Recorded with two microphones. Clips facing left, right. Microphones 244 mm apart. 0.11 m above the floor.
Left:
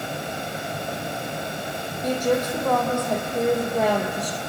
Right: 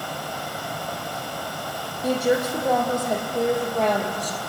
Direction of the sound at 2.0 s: 10° right (ahead or behind).